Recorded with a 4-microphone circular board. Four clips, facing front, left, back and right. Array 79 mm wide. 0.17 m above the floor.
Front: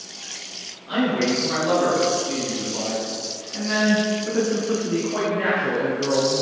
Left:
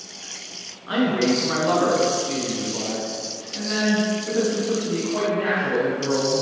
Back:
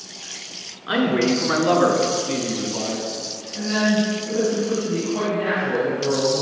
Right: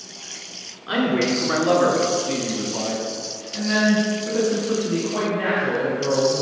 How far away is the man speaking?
About 1.8 m.